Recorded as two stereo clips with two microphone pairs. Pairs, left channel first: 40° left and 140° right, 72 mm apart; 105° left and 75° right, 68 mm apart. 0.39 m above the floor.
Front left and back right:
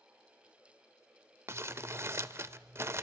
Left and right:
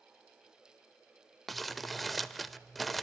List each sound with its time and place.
1.5 s crumpling: 165° right, 0.8 m